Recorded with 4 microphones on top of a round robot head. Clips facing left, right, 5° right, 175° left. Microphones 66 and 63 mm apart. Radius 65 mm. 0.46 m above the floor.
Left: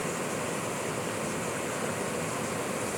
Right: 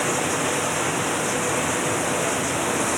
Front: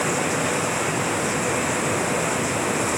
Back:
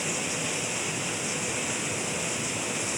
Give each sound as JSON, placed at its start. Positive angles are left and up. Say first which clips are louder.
{"t": 0.0, "sound": "running water", "louder": "right 9 dB, front 9 dB", "azimuth_deg": -60}